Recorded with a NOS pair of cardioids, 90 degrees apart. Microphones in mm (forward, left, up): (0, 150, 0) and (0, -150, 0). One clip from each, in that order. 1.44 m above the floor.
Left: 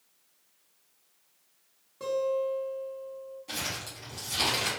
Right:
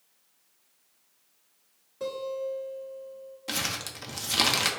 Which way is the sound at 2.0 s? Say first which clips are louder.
Left 4 dB; 5° left.